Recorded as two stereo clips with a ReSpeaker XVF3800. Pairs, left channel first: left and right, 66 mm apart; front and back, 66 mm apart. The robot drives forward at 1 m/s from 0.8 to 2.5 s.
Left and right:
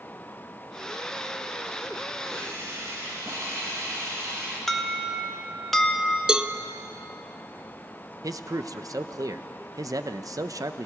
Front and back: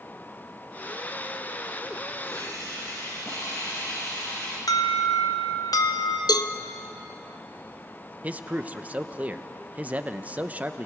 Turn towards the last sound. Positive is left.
turn(degrees=-115)